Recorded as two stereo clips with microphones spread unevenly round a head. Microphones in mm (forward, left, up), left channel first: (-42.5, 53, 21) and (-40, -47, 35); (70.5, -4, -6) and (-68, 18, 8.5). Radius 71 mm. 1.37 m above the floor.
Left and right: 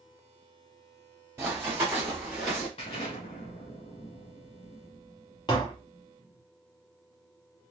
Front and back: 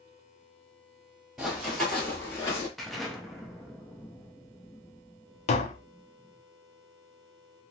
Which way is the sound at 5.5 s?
30° left.